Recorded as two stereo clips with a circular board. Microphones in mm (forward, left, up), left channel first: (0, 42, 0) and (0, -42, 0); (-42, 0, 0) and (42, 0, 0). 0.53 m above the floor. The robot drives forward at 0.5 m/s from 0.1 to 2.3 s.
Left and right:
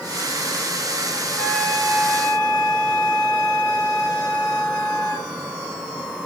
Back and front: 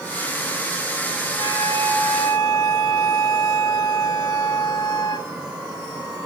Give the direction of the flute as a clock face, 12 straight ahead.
6 o'clock.